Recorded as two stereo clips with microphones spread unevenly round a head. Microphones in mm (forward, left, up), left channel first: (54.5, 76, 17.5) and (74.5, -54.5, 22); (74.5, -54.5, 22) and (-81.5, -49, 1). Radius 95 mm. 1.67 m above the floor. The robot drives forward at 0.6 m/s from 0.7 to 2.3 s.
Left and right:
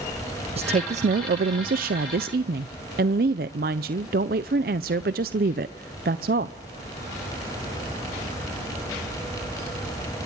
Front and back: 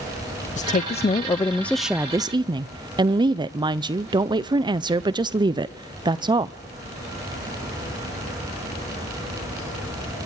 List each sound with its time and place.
0.6 s a woman speaking: 40° right, 0.9 m; by 6.6 s 115° right, 0.7 m